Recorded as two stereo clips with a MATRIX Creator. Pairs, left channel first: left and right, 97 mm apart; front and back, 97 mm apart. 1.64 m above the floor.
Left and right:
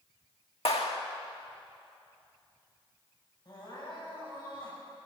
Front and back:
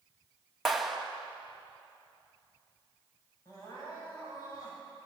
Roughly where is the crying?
Ahead left.